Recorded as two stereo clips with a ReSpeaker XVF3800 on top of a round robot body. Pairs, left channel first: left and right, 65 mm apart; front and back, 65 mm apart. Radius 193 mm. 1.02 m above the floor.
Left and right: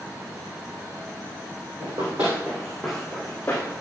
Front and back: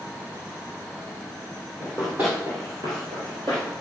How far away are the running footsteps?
About 1.1 m.